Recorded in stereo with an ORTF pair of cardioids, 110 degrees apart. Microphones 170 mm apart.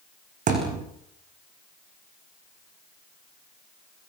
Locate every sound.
0.5 s a thud: 55° right, 7 m